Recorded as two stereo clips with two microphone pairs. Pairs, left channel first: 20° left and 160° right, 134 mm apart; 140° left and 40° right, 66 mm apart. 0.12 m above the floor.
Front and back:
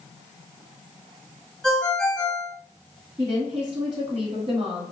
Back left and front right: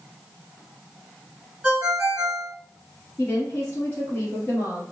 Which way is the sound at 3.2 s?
175° left.